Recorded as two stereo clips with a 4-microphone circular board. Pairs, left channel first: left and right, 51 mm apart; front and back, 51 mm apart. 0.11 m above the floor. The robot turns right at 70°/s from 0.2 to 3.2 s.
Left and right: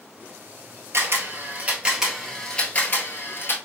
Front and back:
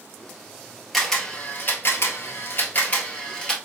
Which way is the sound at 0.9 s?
90° right.